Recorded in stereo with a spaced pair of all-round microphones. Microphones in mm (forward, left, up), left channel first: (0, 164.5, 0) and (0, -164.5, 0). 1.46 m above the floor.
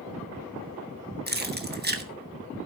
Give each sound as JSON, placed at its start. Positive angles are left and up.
{"t": 1.3, "sound": "keys jangling", "side_deg": -30, "distance_m": 1.1}